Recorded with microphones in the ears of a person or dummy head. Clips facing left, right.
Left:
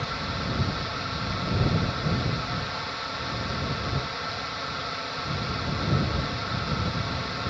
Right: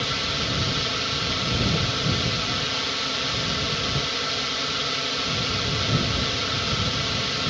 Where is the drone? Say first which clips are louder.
Right 2 dB; 40° right (ahead or behind).